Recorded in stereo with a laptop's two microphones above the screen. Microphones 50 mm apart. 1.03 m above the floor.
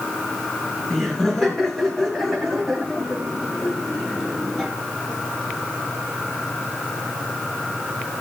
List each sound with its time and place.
0.9 s laughter: 15° left (ahead or behind), 7 m; by 4.7 s centre (ahead or behind), 4.5 m